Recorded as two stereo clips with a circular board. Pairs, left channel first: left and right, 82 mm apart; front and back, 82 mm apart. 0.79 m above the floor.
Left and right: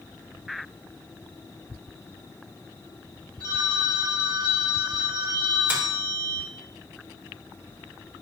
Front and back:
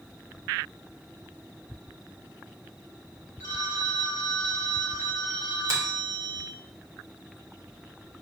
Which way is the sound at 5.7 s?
155° right.